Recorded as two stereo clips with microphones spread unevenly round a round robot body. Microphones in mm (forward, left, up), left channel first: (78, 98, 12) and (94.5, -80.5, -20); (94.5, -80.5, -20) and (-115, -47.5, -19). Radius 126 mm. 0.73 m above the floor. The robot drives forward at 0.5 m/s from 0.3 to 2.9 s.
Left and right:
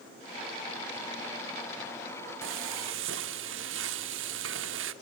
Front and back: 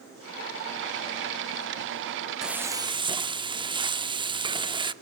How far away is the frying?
About 0.7 m.